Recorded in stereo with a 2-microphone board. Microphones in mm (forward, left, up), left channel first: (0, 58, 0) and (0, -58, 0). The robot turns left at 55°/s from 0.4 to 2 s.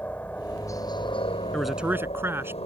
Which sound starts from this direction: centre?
A man speaking, at 1.5 s.